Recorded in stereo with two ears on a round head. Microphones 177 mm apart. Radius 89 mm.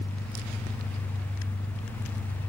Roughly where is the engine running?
Left.